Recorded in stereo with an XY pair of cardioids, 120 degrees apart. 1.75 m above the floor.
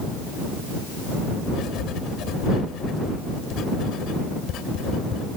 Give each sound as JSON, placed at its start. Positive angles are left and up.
{"t": 1.5, "sound": "writing", "azimuth_deg": 70}